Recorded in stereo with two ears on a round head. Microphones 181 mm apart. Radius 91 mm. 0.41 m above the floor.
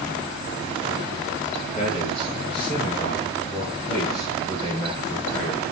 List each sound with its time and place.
1.8 s a man speaking: 30° left (ahead or behind), 9 m; by 5.7 s 15° left (ahead or behind), 8 m